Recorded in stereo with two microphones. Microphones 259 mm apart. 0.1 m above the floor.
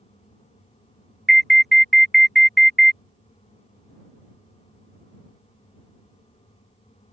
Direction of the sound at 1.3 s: Centre (ahead or behind).